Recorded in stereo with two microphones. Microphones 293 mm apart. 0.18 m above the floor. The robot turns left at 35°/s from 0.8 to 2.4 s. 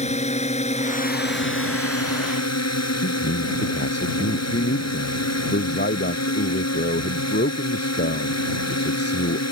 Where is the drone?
155° left; by 9.5 s 100° left.